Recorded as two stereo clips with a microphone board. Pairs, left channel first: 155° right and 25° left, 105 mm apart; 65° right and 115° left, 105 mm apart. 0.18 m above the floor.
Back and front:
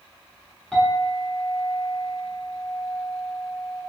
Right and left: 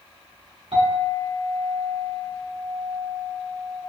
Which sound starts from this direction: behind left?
A clink, at 0.7 s.